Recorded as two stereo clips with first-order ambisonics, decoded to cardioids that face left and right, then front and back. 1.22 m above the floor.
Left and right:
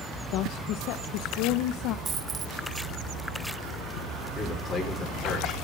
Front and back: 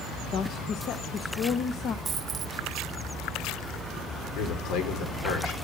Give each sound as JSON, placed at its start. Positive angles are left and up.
{"t": 0.3, "sound": "a woman speaking", "azimuth_deg": 55, "distance_m": 0.8}
{"t": 2.0, "sound": "a dropped coin", "azimuth_deg": -135, "distance_m": 0.6}
{"t": 4.3, "sound": "a man speaking", "azimuth_deg": 5, "distance_m": 4.0}